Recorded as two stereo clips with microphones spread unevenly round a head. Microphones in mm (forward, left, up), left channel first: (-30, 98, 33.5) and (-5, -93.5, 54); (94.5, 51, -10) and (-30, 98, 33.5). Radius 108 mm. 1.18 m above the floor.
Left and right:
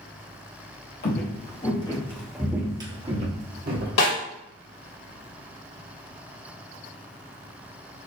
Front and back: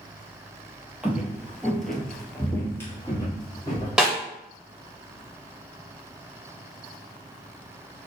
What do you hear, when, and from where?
1.0 s footsteps: 110° left, 1.5 m; by 3.9 s 100° right, 1.8 m
4.0 s a snare drum: 80° left, 2.5 m